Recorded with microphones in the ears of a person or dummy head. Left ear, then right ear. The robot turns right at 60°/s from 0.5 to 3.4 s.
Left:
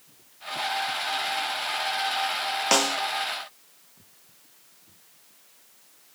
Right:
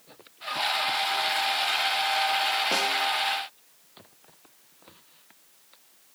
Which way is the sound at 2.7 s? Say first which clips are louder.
Left 2 dB; 55° left (ahead or behind).